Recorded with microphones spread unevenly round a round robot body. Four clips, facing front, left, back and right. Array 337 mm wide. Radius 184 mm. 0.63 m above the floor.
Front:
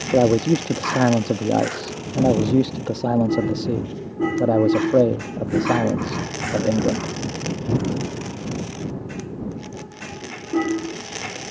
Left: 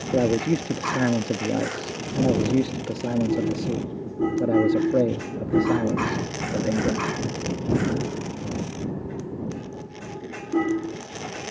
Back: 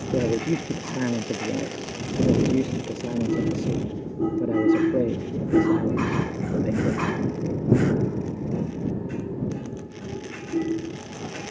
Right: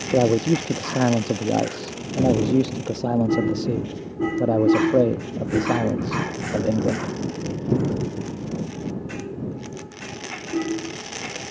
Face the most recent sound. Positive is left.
turn(degrees=-10)